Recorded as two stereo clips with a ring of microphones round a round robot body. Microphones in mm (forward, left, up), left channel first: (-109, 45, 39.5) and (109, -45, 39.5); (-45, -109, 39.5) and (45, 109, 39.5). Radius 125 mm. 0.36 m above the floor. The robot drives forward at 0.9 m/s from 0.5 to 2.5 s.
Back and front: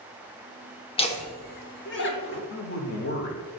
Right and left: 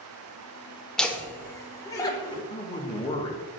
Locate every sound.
1.0 s laughter: 165° left, 1.1 m; by 2.4 s 175° left, 1.9 m
2.5 s a man speaking: 175° right, 1.1 m